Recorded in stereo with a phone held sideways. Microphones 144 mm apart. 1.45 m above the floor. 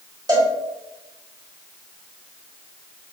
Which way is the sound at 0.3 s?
25° right (ahead or behind).